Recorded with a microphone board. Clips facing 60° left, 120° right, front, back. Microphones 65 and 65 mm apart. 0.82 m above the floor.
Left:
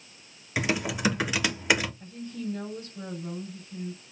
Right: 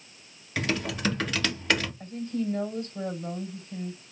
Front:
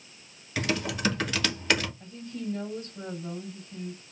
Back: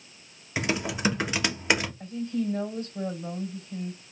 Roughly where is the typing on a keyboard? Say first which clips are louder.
Left 1 dB, back 1 dB; behind left.